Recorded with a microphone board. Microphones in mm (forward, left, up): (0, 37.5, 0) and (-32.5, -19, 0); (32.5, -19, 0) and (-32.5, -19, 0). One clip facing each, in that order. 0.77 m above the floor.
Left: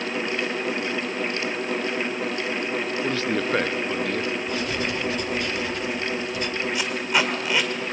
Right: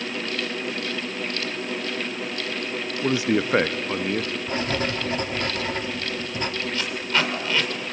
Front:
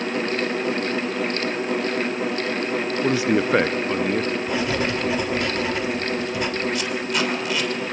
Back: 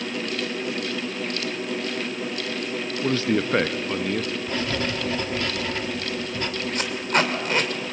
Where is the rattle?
I don't hear a rattle.